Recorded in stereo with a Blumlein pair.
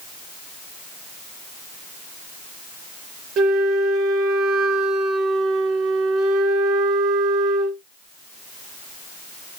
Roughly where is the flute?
Ahead right.